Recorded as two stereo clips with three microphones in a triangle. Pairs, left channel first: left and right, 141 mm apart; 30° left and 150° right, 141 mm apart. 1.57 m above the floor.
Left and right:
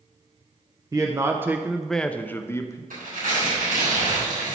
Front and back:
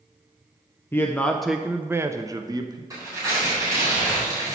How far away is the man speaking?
About 0.6 m.